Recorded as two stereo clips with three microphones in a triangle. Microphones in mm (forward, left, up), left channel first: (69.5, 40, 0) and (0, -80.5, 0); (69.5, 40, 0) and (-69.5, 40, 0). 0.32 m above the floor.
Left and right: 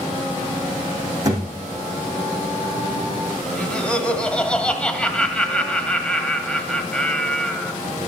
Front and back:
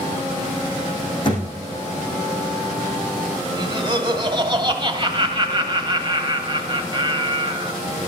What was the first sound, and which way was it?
A thud, 55° right.